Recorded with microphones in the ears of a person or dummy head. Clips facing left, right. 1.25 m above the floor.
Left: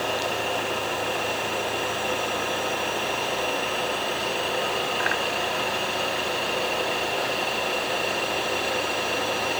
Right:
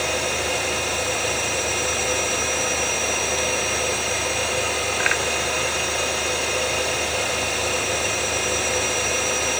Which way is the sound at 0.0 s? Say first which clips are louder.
Right 2 dB; 30° right (ahead or behind).